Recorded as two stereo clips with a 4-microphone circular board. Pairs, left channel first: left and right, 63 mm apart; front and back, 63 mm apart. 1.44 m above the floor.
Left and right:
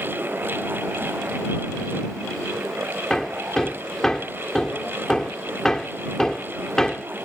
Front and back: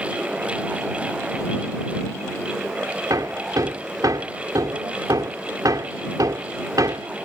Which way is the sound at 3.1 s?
170° left.